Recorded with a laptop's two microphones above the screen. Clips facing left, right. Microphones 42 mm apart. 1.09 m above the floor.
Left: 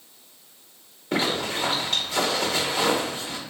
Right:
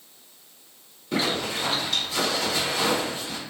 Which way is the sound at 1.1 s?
45° left (ahead or behind).